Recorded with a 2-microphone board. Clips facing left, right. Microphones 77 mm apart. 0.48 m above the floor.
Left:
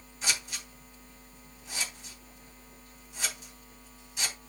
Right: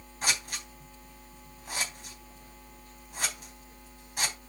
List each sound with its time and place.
0.2 s scissors: 55° right (ahead or behind), 3.5 m